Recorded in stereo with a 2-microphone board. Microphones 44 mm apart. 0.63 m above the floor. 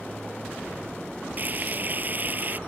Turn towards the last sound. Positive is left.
turn(degrees=-40)  # may be behind; listen again after turning